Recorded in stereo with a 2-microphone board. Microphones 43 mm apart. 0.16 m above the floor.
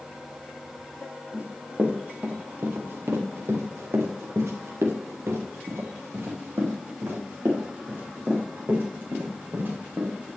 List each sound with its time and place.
1.3 s running footsteps: 35° right (ahead or behind), 2.5 m; by 10.4 s 45° right (ahead or behind), 6 m